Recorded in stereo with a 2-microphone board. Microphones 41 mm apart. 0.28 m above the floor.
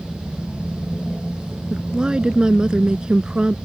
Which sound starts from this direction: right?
A woman speaking, at 1.7 s.